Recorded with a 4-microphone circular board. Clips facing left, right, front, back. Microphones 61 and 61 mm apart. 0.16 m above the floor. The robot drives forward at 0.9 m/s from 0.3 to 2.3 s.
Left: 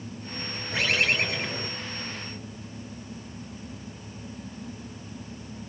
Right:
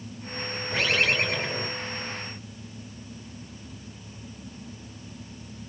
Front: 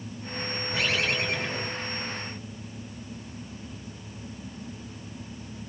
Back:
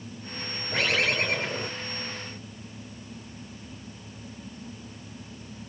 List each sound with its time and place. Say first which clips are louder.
0.7 s a bird: right 1 dB, back 2 dB; 145° right, 4.5 m; by 1.7 s 150° right, 5 m